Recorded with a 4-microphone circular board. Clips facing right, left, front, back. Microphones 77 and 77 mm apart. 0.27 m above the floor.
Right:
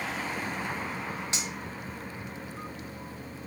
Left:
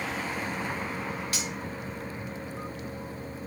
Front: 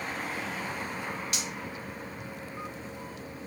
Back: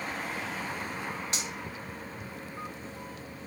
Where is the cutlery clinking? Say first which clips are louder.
Left 1 dB, even; 140° right, 0.6 m.